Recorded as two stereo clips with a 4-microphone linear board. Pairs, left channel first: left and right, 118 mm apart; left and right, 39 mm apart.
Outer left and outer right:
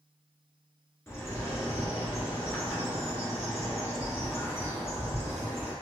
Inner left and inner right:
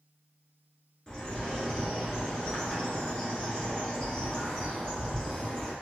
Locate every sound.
1.1 s a bird: 25° left (ahead or behind), 1.2 m